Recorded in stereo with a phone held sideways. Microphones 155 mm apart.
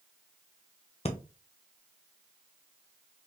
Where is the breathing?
40° left (ahead or behind), 0.7 m.